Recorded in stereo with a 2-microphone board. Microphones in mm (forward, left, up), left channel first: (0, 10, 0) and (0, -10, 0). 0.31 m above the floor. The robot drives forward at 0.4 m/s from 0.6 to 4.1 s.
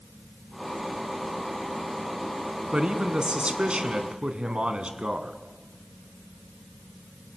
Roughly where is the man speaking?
Right.